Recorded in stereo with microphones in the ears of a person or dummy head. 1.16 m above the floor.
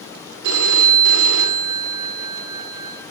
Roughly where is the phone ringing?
Right.